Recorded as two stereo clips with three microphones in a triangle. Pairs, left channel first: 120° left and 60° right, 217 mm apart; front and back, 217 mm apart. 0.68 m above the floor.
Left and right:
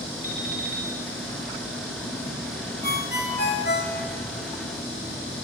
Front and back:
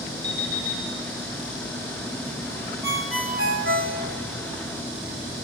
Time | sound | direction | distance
0.2 | an alarm clock | 110° right | 3 m
2.8 | a ringtone | 160° left | 1.2 m